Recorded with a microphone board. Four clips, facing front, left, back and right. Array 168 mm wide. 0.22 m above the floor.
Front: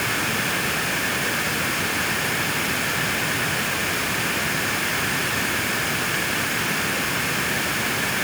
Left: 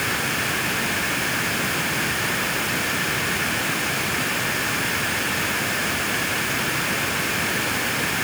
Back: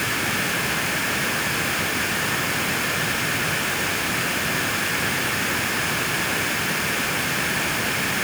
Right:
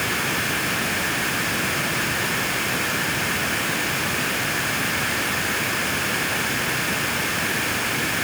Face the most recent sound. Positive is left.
No sound to turn to.